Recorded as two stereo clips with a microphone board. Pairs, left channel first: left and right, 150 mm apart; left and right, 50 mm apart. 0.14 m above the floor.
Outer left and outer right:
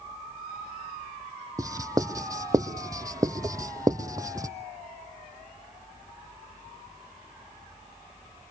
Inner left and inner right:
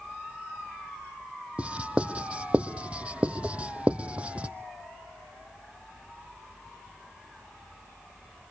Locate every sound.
1.6 s writing: 25° right (ahead or behind), 1.0 m